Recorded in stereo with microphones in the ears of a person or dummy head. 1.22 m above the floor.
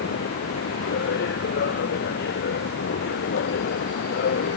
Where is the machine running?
55° left (ahead or behind).